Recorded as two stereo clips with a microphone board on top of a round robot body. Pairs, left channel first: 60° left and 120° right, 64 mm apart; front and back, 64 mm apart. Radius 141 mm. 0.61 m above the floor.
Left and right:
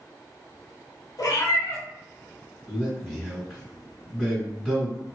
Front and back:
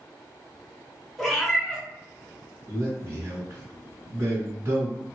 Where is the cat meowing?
85° left, 0.8 m.